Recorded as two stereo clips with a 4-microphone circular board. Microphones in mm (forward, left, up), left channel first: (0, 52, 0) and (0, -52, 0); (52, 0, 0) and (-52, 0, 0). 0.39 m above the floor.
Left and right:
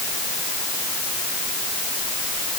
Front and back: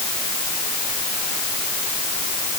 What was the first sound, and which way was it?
Only background noise.